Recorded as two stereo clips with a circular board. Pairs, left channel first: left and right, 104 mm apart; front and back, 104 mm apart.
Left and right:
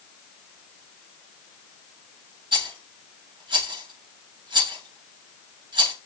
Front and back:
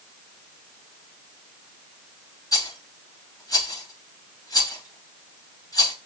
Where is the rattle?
55° right, 8.5 m.